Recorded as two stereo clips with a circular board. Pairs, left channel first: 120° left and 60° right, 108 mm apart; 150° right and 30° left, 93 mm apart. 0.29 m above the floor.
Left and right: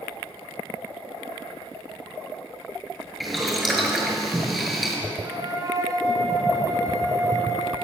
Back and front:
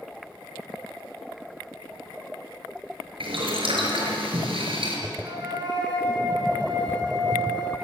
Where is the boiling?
30° left, 6 m.